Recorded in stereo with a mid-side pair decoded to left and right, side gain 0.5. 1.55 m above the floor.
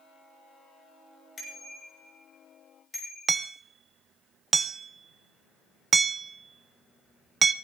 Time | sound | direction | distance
1.4 | a bicycle bell | 40° left | 6.5 m
3.3 | hammering | 30° right | 0.9 m